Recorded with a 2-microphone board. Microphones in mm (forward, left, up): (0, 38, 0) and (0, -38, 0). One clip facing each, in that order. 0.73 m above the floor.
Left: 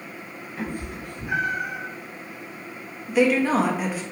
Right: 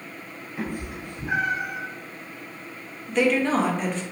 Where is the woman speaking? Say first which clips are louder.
Left 2 dB; 5° left (ahead or behind), 0.5 m.